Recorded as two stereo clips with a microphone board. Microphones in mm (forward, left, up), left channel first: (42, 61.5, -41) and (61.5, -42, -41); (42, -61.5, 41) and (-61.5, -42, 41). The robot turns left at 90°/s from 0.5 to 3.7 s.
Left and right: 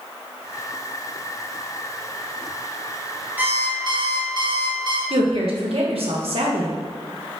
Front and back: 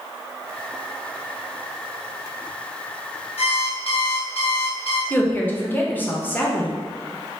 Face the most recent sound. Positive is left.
turn(degrees=-85)